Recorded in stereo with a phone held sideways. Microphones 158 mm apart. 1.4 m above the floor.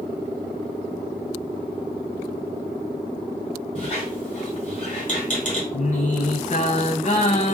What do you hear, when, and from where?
3.8 s a squeak: 50° left (ahead or behind), 1.9 m
5.7 s singing: 50° left (ahead or behind), 0.7 m